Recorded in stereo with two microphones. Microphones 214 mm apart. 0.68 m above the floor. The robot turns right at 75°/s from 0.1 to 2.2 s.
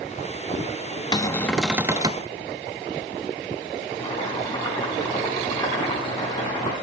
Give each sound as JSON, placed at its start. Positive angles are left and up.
{"t": 1.1, "sound": "a cupboard door", "azimuth_deg": 145, "distance_m": 0.6}
{"t": 4.0, "sound": "boiling", "side_deg": 20, "distance_m": 5.5}